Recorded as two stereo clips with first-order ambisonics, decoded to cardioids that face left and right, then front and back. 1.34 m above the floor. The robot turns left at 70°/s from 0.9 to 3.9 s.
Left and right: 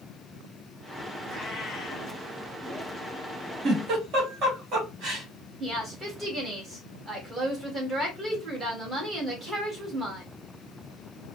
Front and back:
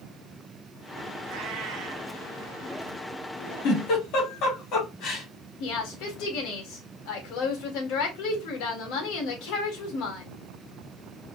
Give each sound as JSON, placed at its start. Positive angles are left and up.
{"t": 1.2, "sound": "a cat meowing", "azimuth_deg": -170, "distance_m": 2.5}
{"t": 3.6, "sound": "a giggle", "azimuth_deg": -25, "distance_m": 2.0}
{"t": 5.6, "sound": "a woman speaking", "azimuth_deg": -15, "distance_m": 1.9}